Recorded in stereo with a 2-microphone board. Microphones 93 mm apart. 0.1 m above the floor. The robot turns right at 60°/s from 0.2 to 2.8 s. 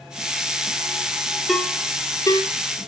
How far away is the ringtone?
About 1.7 m.